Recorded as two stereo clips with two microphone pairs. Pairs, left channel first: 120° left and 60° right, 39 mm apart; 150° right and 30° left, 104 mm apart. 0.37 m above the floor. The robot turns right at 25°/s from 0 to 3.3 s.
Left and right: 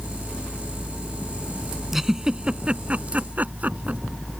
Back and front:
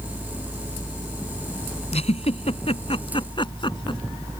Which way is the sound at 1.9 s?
145° right.